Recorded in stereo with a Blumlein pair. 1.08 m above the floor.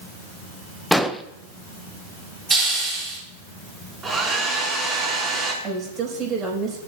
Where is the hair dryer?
15° right, 5.5 m.